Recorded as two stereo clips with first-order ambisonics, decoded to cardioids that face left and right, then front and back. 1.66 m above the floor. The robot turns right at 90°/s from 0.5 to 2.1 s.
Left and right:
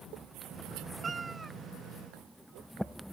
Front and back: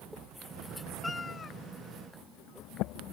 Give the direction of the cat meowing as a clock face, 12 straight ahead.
2 o'clock.